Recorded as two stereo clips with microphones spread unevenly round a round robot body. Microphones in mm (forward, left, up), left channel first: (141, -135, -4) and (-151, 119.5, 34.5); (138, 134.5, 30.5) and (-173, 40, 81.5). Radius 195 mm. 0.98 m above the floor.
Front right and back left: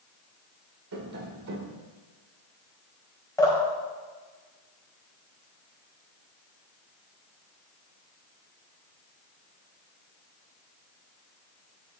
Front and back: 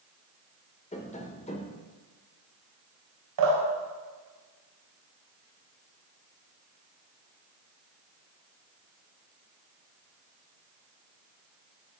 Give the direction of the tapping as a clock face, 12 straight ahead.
9 o'clock.